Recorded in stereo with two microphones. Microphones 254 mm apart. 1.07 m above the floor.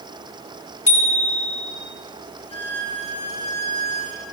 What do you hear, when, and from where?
0.9 s a bicycle bell: 90° left, 6 m
2.5 s a violin: 20° left (ahead or behind), 6 m